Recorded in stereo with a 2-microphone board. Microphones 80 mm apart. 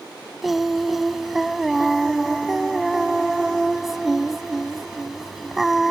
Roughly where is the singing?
Centre.